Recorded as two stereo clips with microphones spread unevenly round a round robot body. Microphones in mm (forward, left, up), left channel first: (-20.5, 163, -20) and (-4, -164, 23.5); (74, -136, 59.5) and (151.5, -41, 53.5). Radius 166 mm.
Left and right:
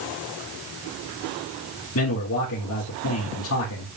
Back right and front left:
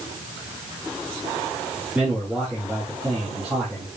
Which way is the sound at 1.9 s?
135° left.